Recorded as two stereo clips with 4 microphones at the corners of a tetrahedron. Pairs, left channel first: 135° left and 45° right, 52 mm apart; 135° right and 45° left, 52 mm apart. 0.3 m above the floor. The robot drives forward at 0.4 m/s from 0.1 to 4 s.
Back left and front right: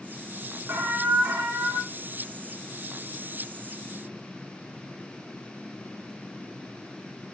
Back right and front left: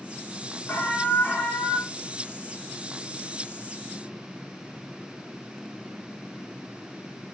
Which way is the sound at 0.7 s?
80° right.